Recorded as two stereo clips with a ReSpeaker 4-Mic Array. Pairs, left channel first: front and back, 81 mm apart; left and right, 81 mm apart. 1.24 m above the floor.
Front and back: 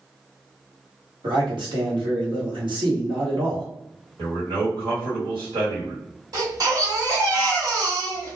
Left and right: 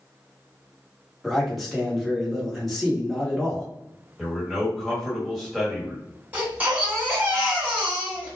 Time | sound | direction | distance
1.2 | a man speaking | straight behind | 1.2 m
4.2 | a man speaking | 175° right | 1.5 m
6.3 | a baby crying | 155° right | 1.4 m